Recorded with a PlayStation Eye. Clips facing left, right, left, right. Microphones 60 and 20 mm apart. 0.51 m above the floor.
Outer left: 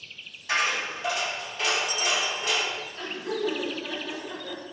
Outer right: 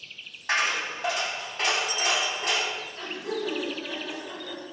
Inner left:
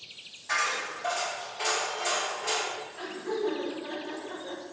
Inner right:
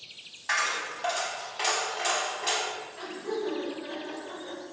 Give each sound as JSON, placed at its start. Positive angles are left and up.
{"t": 0.5, "sound": "a dropped coin", "side_deg": -60, "distance_m": 0.8}
{"t": 3.0, "sound": "laughter", "side_deg": -25, "distance_m": 1.4}